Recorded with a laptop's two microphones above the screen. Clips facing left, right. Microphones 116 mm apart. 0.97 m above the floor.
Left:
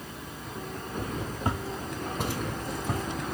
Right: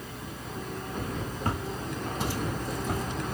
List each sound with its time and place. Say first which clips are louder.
1.4 s footsteps: even; 20° left (ahead or behind), 1.0 m; by 3.0 s 65° left (ahead or behind), 2.5 m